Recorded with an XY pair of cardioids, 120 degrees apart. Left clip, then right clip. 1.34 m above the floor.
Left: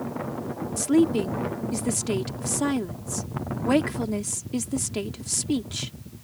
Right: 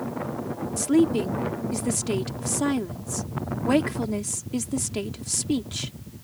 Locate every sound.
0.8 s a woman speaking: 5° left